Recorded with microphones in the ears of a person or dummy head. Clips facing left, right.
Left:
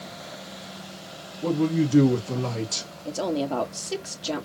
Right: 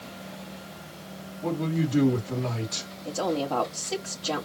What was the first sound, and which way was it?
A man speaking, 70° left (ahead or behind).